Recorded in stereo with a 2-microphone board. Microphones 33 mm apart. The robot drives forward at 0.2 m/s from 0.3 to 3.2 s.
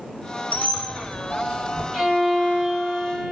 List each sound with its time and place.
0.5 s a squeak: 50° left (ahead or behind), 0.9 m; by 1.8 s 40° left (ahead or behind), 1.0 m
1.9 s a violin: 10° right (ahead or behind), 1.1 m; by 3.3 s 5° right (ahead or behind), 1.4 m